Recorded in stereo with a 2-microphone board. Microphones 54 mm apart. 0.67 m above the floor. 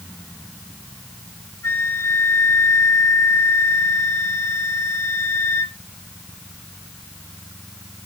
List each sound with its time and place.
1.6 s a flute: 70° left (ahead or behind), 1.9 m